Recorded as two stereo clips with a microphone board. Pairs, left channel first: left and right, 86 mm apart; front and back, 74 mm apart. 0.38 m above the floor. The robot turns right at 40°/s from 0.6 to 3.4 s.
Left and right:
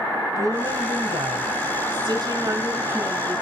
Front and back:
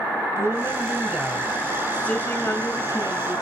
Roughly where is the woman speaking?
Behind right.